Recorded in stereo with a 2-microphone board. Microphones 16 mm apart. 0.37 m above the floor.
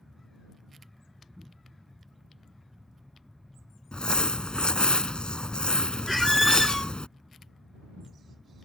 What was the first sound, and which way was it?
Crumpling, 80° left.